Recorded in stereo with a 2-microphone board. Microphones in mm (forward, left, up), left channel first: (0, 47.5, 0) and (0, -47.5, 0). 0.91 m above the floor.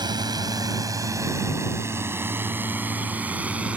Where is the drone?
45° right (ahead or behind); by 3.8 s 10° right (ahead or behind).